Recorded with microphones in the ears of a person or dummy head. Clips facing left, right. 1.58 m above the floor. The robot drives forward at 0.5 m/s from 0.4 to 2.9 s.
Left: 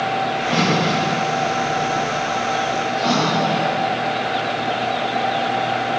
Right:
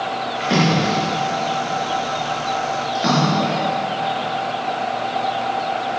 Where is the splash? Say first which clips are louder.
Right 3 dB; 40° right (ahead or behind), 4.5 m; by 3.5 s 30° right (ahead or behind), 5.5 m.